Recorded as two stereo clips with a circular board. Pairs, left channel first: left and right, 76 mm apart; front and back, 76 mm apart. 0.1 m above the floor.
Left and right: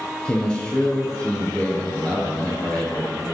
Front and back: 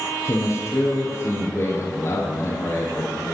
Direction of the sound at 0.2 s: 20° left.